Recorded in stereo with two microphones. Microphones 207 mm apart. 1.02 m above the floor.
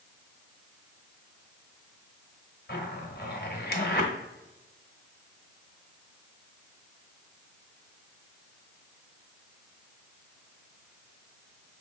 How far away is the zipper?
About 1.0 m.